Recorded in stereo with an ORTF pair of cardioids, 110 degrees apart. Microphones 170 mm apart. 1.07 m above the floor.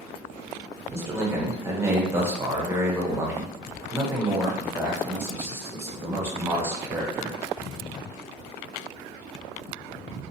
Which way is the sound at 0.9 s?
15° right.